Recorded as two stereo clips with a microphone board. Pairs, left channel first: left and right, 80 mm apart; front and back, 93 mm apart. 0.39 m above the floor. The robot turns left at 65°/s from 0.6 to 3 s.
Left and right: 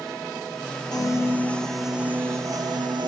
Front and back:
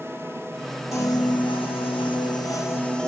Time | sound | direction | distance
0.9 | a piano | 55° left | 0.7 m